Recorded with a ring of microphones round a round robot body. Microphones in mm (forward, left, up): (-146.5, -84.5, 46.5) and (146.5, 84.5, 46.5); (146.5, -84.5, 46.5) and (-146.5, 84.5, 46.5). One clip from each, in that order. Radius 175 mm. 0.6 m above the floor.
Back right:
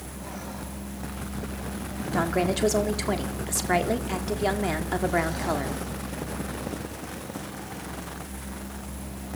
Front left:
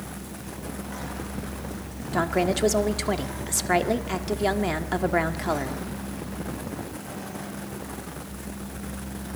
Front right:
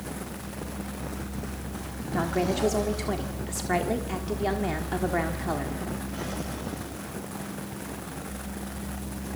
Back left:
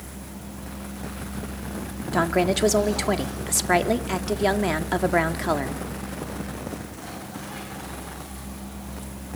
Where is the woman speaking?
115° left, 1.5 m.